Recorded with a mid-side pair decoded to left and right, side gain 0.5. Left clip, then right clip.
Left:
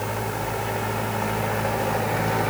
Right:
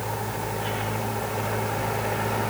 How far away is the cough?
I don't hear a cough.